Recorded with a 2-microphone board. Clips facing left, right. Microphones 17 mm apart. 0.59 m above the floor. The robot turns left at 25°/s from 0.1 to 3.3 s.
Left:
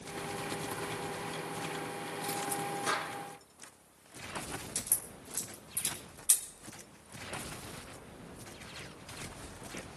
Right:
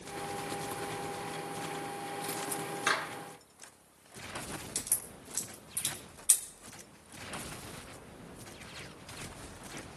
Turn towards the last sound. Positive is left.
turn(degrees=-30)  # may be behind; listen again after turning